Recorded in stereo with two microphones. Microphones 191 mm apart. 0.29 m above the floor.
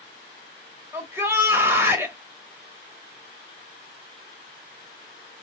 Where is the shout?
10° right (ahead or behind), 0.9 m.